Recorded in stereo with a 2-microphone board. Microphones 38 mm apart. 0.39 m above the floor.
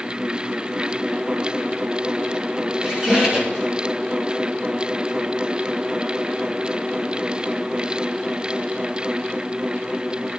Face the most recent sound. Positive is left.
turn(degrees=-25)  # may be behind; listen again after turning